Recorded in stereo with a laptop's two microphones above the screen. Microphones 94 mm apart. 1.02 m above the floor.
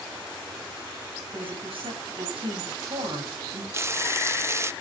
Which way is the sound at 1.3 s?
85° right.